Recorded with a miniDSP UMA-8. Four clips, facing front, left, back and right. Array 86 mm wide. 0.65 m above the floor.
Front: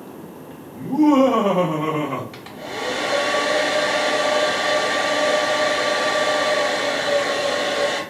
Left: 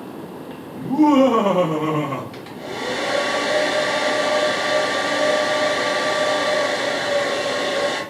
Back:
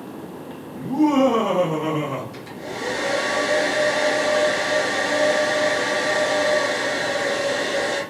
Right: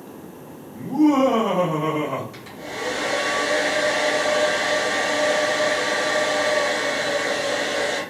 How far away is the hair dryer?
About 1.0 m.